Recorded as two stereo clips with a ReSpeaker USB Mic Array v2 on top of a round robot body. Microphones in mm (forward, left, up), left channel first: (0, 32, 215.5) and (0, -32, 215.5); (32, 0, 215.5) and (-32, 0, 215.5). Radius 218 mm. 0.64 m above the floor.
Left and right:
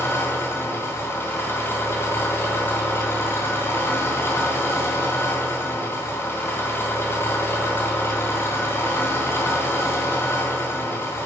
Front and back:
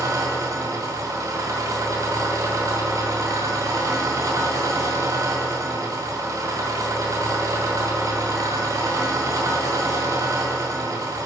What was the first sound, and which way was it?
An engine running, 145° left.